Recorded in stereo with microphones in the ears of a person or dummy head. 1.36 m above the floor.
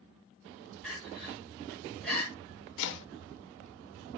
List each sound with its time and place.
0.8 s crying: 5° left (ahead or behind), 2 m
2.8 s chopping: 70° left (ahead or behind), 0.6 m